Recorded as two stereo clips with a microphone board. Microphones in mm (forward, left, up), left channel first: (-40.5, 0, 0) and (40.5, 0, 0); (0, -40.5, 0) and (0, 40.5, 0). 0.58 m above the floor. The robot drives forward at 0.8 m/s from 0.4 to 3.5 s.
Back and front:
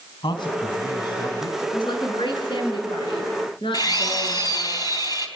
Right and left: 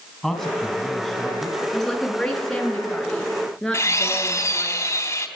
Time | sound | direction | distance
0.2 | a man speaking | 175° right | 3.5 m
1.7 | a woman speaking | 175° right | 6.5 m
3.7 | a drill | 145° right | 3.5 m